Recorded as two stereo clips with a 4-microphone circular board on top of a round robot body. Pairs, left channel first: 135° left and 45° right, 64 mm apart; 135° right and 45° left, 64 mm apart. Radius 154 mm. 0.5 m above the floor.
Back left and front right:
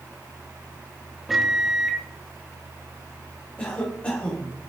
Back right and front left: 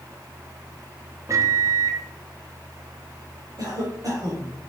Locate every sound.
1.3 s a microwave: 40° left, 1.2 m
3.6 s a cough: 60° left, 2.5 m